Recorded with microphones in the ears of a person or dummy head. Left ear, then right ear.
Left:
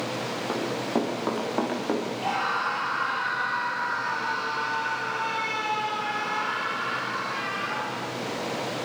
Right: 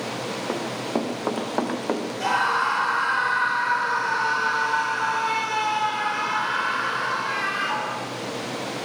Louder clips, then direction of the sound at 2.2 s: Right 7 dB; 55° right (ahead or behind).